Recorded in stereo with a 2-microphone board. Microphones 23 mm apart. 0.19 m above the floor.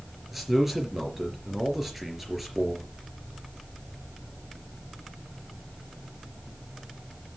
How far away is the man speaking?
About 3.5 m.